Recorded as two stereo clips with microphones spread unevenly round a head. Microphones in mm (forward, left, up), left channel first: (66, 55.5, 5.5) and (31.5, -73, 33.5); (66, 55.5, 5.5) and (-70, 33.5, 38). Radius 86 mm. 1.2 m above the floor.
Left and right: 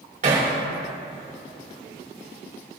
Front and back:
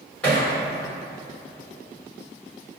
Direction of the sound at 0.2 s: 70° right.